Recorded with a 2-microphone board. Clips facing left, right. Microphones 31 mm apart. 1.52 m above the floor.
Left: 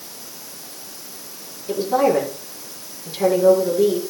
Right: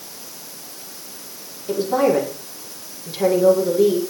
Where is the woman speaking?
5° right (ahead or behind), 4.5 m.